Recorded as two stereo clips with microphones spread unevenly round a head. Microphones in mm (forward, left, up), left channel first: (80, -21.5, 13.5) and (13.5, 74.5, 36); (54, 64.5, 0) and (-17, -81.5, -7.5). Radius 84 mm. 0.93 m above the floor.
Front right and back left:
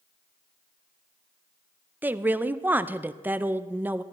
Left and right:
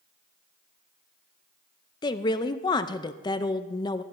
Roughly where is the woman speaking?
Ahead left.